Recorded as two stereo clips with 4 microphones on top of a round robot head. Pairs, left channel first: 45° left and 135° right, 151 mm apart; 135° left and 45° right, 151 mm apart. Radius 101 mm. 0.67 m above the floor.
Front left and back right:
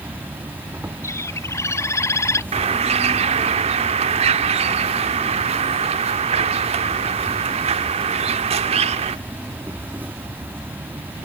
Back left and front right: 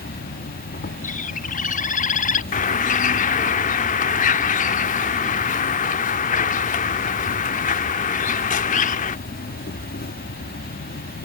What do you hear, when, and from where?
0.0 s an insect: 150° left
1.0 s a bird: 115° left
2.5 s a bird: 175° left